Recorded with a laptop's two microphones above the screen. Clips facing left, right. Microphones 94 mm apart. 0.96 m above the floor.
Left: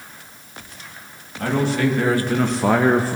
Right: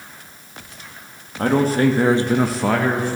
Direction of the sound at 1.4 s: 45° right (ahead or behind).